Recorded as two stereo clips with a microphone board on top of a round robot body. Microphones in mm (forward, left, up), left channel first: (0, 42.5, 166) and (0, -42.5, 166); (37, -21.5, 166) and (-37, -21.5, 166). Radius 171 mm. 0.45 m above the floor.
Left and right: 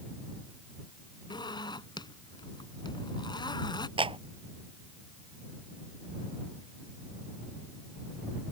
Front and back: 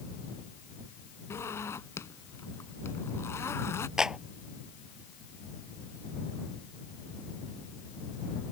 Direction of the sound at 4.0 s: 100° right.